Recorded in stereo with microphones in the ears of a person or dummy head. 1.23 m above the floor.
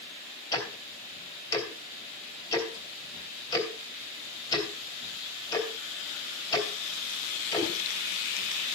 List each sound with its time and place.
0.5 s ticking: 20° left (ahead or behind), 3 m